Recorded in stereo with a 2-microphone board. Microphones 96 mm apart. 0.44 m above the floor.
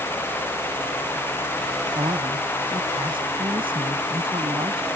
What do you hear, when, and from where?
1.9 s a man speaking: 65° right (ahead or behind)